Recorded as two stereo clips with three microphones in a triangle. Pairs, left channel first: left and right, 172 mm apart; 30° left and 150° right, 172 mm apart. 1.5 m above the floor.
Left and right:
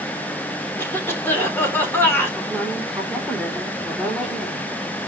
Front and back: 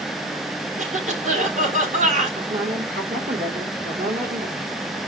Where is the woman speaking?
175° left, 4.5 m.